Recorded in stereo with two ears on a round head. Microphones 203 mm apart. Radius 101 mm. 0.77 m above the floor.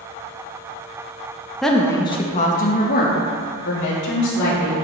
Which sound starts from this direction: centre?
A woman speaking, at 1.6 s.